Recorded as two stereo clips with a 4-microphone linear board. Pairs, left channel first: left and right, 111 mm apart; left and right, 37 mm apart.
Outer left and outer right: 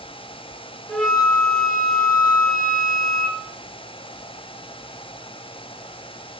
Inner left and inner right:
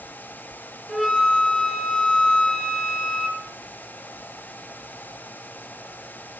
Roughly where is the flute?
Centre.